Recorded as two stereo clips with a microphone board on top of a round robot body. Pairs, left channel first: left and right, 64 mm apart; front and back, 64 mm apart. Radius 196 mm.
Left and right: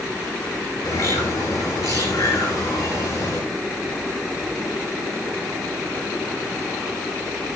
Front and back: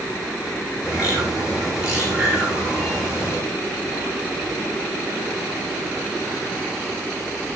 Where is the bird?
100° left, 7 m.